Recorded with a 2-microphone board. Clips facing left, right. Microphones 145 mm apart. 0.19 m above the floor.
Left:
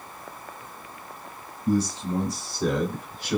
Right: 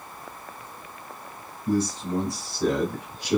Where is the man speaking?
10° left (ahead or behind), 1.2 m; by 3.4 s 20° right (ahead or behind), 1.1 m.